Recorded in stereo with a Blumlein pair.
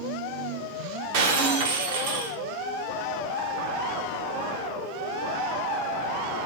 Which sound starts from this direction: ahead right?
Breaking glass, at 1.1 s.